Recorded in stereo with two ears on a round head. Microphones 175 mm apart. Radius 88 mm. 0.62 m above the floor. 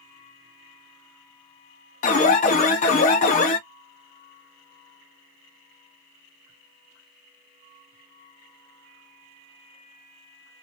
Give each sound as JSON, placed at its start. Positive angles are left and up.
{"t": 2.0, "sound": "an alarm", "side_deg": 40, "distance_m": 0.7}